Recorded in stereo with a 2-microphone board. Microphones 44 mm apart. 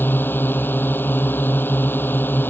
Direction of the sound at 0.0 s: 50° left (ahead or behind).